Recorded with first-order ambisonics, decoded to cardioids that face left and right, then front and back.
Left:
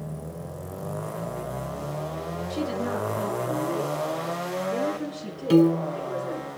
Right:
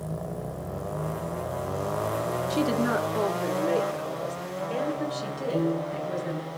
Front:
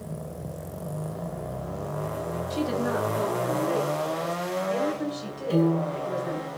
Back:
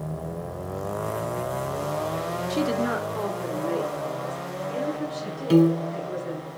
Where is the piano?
125° left, 0.5 m.